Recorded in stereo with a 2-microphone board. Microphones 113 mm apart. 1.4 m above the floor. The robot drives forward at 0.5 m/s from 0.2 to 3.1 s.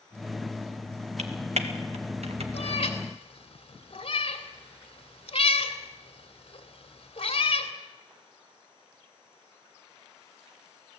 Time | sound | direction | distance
1.2 | typing on a keyboard | 75° right (ahead or behind) | 1.9 m
2.5 | a cat meowing | 60° left (ahead or behind) | 2 m